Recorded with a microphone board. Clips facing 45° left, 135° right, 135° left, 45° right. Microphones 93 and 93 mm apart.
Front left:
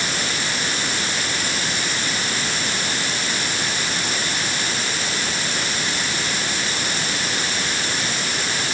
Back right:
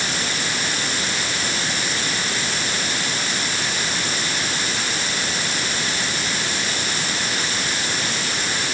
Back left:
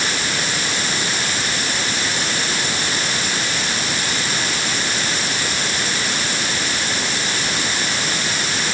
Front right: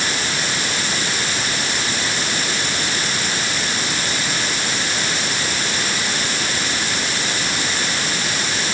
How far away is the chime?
No chime in this recording.